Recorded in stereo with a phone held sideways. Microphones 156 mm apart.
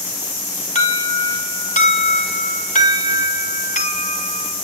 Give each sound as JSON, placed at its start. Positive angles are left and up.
{"t": 0.8, "sound": "an alarm", "side_deg": 60, "distance_m": 4.5}